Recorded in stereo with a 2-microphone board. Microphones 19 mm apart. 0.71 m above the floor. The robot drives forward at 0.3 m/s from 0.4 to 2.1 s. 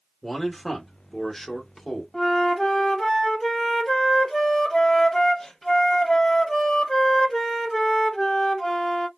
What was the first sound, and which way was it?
A man speaking, 15° left (ahead or behind).